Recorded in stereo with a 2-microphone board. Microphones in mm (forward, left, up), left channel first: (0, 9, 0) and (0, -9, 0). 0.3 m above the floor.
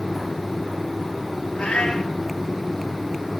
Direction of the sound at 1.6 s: 65° left (ahead or behind).